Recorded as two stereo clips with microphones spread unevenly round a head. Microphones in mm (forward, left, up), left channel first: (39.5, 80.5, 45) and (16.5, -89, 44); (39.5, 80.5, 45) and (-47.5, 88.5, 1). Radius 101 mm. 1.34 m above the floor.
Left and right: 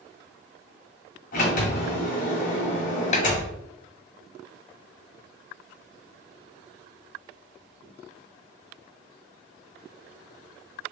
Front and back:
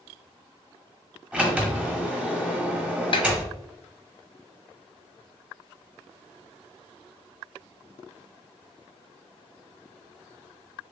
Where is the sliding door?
75° left, 1.4 m.